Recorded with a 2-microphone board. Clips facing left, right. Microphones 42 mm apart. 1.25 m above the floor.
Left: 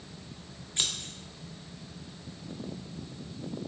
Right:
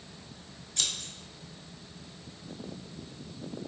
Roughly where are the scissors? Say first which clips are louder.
Left 1 dB; left.